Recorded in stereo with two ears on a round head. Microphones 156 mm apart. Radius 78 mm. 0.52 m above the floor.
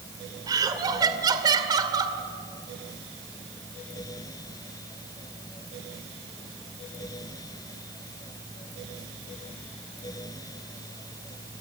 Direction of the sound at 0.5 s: 25° right (ahead or behind).